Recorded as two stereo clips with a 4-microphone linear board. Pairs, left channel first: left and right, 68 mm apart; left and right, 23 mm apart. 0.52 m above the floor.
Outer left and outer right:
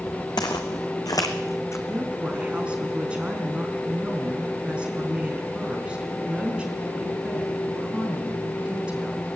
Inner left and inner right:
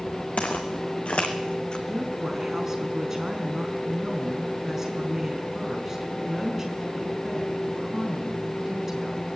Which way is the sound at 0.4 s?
80° left.